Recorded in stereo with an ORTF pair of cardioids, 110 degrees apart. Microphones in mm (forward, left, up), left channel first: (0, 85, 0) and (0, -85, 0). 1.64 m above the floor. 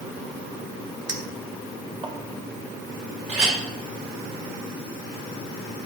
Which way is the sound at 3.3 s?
45° right.